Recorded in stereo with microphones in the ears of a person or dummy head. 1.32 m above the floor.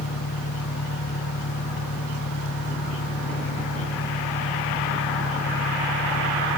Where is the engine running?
70° left (ahead or behind).